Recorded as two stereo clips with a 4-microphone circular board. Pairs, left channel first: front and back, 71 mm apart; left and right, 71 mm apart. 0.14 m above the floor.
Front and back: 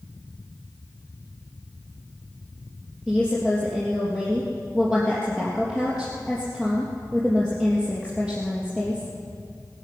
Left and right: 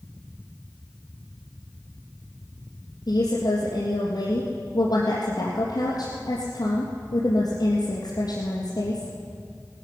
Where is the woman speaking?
75° left, 3 m.